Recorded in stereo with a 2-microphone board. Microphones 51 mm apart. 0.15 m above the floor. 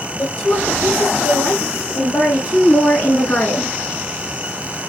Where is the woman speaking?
35° left (ahead or behind), 4 m; by 3.8 s 25° left (ahead or behind), 1.1 m.